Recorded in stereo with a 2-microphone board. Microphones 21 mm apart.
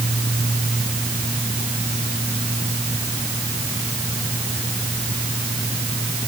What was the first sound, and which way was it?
Only background noise.